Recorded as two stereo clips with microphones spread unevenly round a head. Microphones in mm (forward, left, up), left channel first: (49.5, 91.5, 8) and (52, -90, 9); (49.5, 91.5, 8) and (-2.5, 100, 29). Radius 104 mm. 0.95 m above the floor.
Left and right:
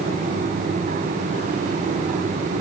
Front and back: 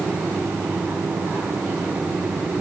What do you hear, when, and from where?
Only background noise.